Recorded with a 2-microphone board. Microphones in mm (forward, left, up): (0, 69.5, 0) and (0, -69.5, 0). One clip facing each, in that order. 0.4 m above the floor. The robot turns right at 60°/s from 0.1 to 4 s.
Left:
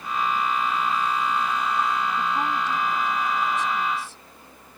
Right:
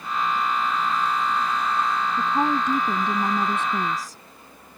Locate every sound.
2.2 s a woman speaking: 155° right; by 4.2 s 45° right